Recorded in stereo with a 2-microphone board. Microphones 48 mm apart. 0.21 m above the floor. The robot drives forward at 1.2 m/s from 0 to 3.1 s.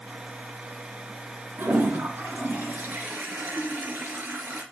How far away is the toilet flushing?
About 2 m.